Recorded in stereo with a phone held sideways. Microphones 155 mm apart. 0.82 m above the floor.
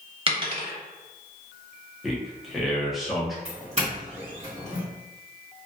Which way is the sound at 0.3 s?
35° right (ahead or behind).